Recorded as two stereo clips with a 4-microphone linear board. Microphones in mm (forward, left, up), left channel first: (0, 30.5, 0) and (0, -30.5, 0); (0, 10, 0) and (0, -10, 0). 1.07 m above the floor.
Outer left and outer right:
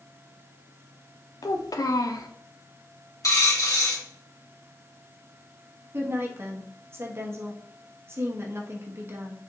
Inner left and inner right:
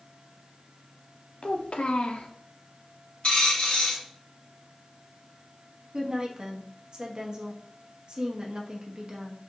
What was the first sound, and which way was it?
A child speaking, 85° left.